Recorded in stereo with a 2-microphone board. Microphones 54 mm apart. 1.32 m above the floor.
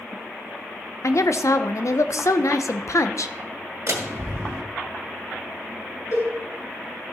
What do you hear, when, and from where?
1.0 s a woman speaking: 70° left (ahead or behind), 0.7 m
3.9 s a door slam: 65° right (ahead or behind), 2 m
6.1 s a cowbell: 65° left (ahead or behind), 5.5 m